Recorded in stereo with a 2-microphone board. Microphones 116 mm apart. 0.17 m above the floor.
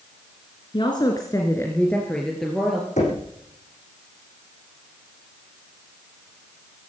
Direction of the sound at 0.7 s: 45° left (ahead or behind).